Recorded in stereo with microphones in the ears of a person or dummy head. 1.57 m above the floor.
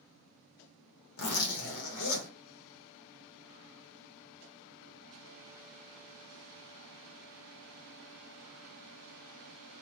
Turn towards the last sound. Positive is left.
turn(degrees=70)  # may be behind; listen again after turning